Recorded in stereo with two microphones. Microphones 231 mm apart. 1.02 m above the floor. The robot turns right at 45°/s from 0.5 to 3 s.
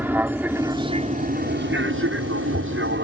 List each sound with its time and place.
0.0 s an aircraft: 10° right (ahead or behind); by 3.0 s 55° right (ahead or behind)